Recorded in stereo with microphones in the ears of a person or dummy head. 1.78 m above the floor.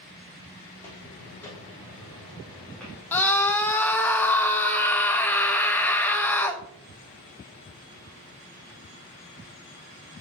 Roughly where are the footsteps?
Centre.